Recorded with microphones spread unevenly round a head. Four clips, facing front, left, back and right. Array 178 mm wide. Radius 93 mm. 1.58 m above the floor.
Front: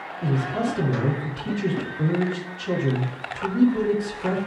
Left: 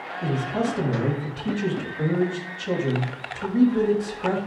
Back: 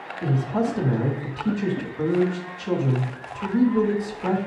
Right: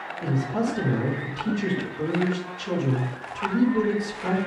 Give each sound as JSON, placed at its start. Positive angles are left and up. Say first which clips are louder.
{"t": 0.2, "sound": "a man speaking", "louder": "left 1 dB, back 1 dB", "azimuth_deg": -170, "distance_m": 3.0}